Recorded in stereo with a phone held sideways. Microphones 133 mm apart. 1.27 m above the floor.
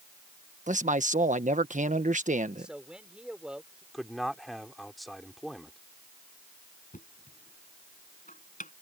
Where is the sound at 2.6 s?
5° right (ahead or behind).